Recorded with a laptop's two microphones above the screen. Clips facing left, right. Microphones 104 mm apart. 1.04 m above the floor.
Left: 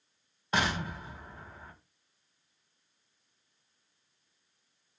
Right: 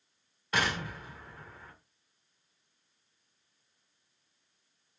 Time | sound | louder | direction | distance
0.5 | an explosion | left 1 dB | 25° left (ahead or behind) | 1.8 m